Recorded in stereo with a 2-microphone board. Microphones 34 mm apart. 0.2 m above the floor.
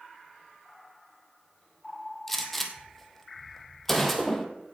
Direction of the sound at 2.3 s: Centre (ahead or behind).